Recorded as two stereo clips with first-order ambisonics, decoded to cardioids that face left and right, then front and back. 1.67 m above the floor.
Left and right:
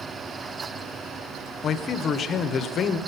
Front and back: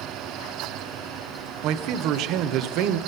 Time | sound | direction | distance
1.6 | a man speaking | 150° left | 0.9 m